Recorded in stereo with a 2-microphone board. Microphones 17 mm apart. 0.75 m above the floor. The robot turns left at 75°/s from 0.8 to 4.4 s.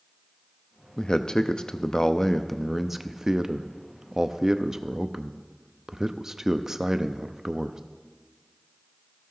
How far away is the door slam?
No door slam in this recording.